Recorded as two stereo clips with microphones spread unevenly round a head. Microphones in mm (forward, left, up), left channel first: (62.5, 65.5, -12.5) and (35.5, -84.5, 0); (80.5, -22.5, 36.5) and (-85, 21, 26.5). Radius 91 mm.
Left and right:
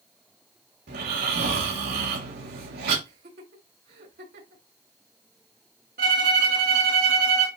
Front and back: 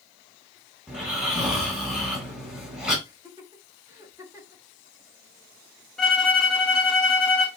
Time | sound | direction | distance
0.9 | snoring | 110° right | 6 m
3.0 | laughter | 120° right | 6 m
6.0 | a violin | 105° right | 3 m